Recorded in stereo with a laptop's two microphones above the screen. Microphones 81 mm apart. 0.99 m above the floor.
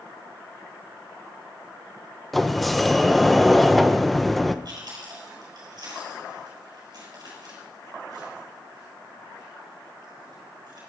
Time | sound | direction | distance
2.3 | a sliding door | centre (ahead or behind) | 0.5 m
4.7 | chewing | 55° right (ahead or behind) | 4 m